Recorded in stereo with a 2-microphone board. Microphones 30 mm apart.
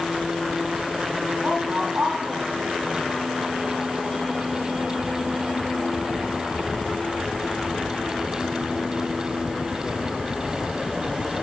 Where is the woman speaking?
45° right (ahead or behind), 3.5 m.